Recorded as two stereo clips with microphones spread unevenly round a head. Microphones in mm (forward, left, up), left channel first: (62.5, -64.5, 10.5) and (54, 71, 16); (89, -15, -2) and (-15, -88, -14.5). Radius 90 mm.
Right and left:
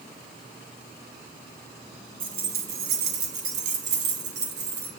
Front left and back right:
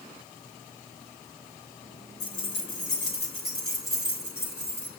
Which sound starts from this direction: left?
Keys jangling, at 2.2 s.